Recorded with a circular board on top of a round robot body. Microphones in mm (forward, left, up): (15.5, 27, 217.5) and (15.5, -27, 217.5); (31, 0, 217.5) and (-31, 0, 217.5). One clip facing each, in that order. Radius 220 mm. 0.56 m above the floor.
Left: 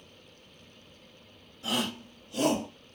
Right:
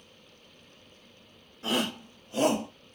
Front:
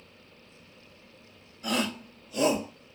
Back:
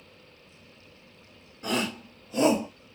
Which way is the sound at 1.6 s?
135° right.